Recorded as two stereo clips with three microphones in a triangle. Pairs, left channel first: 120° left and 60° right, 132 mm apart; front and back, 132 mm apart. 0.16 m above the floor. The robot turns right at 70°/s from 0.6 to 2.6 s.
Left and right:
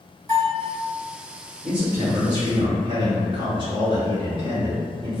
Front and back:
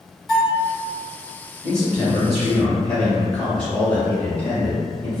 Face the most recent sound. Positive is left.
turn(degrees=-75)